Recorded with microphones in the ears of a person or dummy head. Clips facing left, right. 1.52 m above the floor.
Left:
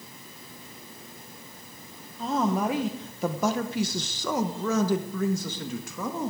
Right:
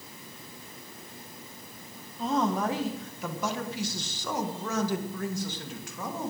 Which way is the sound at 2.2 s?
Centre (ahead or behind).